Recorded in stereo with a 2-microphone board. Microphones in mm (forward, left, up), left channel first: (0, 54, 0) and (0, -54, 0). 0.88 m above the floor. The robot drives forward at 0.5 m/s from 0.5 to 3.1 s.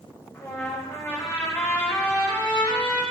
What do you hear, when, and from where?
0.3 s a trumpet: 25° left (ahead or behind), 2.5 m; by 3.0 s 15° left (ahead or behind), 3.5 m